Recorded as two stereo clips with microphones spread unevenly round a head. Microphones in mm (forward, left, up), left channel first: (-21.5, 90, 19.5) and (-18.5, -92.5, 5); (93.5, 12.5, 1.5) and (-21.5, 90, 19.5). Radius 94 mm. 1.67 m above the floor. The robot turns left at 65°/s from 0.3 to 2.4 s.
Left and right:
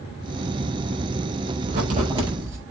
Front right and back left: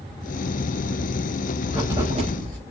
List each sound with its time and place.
1.7 s writing: 120° right, 5 m; by 2.6 s 165° right, 5 m